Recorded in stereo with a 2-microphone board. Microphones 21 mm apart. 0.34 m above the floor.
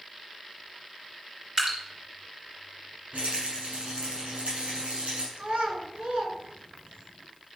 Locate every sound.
1.6 s dripping: 35° right (ahead or behind), 4 m
3.1 s a rattle: 80° right, 6.5 m
5.4 s a child speaking: 80° right, 3.5 m